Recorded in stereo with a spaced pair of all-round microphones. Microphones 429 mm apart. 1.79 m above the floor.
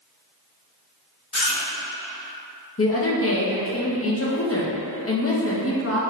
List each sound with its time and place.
1.3 s chewing: 40° left (ahead or behind), 0.8 m
2.8 s a woman speaking: 35° left (ahead or behind), 0.7 m